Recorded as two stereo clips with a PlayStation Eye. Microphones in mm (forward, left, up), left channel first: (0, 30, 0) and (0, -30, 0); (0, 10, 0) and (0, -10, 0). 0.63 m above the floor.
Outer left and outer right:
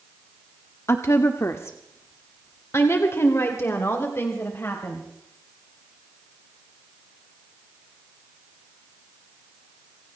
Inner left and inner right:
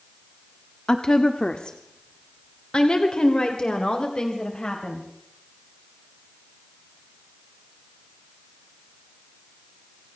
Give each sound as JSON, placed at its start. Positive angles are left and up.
{"t": 0.9, "sound": "a woman speaking", "side_deg": 50, "distance_m": 1.1}